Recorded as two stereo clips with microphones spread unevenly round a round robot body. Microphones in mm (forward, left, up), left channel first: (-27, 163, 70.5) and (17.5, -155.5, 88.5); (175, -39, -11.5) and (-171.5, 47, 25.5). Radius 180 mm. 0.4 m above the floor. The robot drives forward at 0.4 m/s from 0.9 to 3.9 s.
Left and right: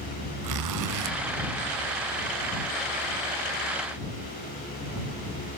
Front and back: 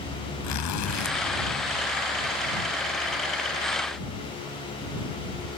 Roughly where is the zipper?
Ahead right.